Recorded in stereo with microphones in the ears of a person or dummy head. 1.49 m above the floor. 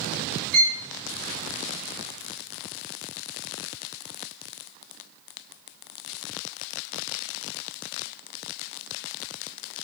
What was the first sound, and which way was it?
A violin, 50° right (ahead or behind).